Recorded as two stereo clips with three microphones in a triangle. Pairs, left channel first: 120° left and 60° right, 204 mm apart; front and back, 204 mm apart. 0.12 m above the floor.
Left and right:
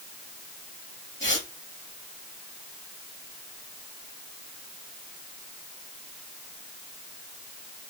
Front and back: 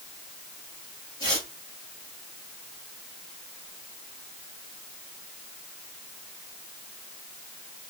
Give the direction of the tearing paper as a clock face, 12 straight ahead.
8 o'clock.